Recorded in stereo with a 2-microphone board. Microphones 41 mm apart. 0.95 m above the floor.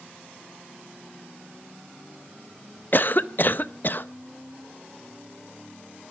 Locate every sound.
2.9 s a cough: 50° left (ahead or behind), 0.8 m